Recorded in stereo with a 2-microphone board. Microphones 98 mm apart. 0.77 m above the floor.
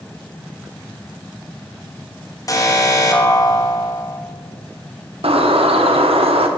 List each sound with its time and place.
2.5 s an alarm: 35° left (ahead or behind), 1.2 m
5.2 s a bird: 80° right, 0.7 m